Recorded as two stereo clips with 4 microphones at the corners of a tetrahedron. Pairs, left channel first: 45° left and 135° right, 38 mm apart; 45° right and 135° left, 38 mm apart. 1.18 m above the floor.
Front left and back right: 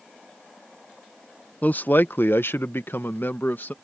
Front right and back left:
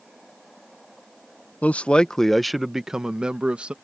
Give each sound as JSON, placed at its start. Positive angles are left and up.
{"t": 1.6, "sound": "a man speaking", "azimuth_deg": 0}